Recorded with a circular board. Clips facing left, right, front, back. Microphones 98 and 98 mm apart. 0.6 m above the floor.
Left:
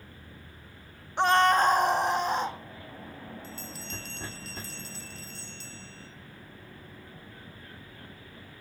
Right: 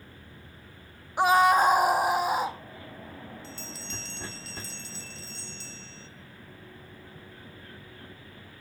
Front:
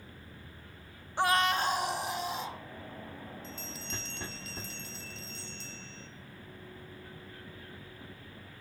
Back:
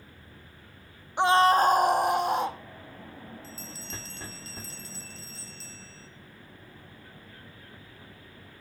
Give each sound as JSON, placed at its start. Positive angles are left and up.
{"t": 1.2, "sound": "a scream", "azimuth_deg": -155, "distance_m": 0.6}
{"t": 3.4, "sound": "a bell", "azimuth_deg": 130, "distance_m": 2.0}